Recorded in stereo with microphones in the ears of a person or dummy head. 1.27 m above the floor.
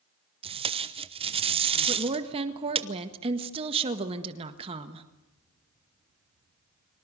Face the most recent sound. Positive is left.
turn(degrees=-30)  # may be behind; listen again after turning